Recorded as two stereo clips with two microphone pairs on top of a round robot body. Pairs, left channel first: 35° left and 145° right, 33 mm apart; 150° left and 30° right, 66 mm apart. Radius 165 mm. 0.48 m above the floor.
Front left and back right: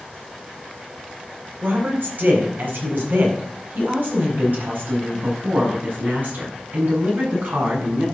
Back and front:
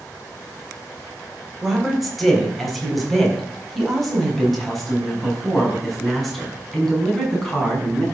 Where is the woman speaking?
125° right, 3.5 m.